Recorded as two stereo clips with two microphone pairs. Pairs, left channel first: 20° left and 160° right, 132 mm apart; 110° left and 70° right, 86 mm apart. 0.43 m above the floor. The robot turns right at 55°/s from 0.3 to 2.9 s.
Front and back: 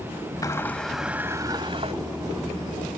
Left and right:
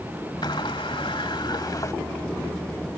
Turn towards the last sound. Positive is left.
turn(degrees=-145)